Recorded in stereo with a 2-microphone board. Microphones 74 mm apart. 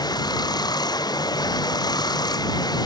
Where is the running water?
65° left (ahead or behind).